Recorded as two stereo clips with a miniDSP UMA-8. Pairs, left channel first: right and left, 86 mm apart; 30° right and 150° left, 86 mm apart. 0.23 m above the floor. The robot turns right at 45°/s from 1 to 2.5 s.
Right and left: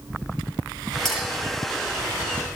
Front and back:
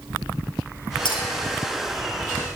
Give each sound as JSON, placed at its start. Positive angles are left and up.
{"t": 1.1, "sound": "a clink", "azimuth_deg": -5, "distance_m": 3.5}